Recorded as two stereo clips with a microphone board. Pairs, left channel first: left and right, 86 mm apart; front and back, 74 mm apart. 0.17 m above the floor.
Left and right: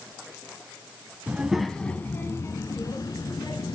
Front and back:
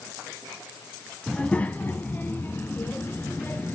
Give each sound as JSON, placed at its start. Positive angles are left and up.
{"t": 1.3, "sound": "a child speaking", "azimuth_deg": -55, "distance_m": 0.6}